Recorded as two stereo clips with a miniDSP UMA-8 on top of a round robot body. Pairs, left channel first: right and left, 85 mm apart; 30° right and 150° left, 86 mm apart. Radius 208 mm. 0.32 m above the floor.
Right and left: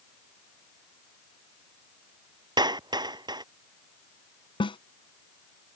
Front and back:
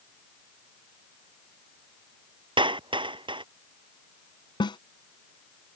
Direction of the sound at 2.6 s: 130° left.